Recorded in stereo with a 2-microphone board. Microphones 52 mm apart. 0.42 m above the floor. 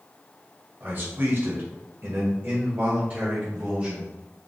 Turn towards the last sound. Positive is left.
turn(degrees=-25)  # may be behind; listen again after turning